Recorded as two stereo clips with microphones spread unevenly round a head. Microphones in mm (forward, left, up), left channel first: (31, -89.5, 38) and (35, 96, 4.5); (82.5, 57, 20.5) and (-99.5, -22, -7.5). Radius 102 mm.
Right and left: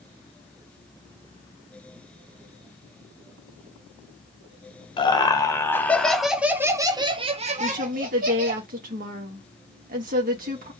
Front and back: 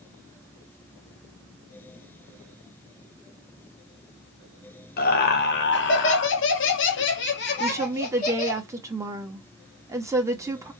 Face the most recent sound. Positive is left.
turn(degrees=130)